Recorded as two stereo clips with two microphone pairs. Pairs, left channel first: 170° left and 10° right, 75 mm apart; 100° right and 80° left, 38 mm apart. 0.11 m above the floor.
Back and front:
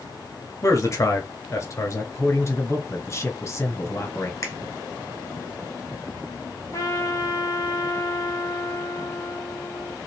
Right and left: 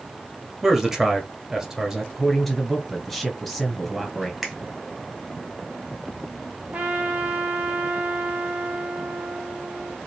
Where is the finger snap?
160° left, 1.6 m.